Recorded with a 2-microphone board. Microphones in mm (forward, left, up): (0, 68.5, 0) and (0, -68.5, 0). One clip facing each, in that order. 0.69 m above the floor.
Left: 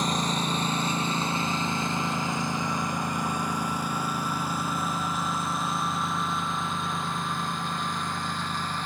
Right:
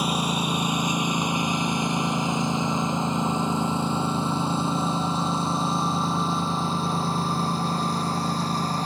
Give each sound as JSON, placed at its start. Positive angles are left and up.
{"t": 0.0, "sound": "a lawn mower", "side_deg": -10}